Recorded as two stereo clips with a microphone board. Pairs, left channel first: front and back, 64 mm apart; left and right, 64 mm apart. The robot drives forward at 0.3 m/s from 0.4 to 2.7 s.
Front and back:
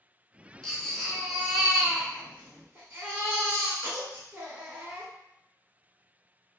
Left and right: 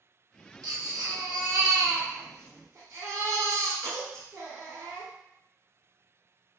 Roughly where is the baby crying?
Right.